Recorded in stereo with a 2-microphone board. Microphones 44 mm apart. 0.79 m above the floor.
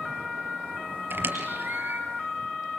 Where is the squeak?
55° right (ahead or behind), 4 m.